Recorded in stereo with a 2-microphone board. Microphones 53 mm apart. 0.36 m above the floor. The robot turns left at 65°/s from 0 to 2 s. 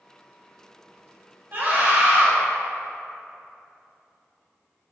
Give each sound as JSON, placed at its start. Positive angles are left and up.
{"t": 1.5, "sound": "a scream", "azimuth_deg": -90, "distance_m": 1.1}